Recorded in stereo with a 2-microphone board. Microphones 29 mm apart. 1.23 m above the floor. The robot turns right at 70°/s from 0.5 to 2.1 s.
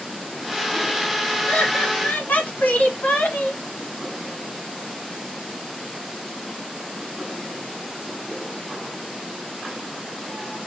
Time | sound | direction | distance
1.5 | laughter | 50° left | 3 m